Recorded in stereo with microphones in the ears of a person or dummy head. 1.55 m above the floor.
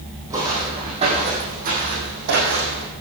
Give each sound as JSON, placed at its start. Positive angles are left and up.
{"t": 0.3, "sound": "footsteps", "side_deg": -15, "distance_m": 4.0}